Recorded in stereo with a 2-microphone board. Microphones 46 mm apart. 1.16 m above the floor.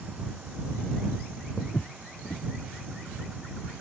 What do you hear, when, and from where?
1.6 s footsteps: 75° left (ahead or behind)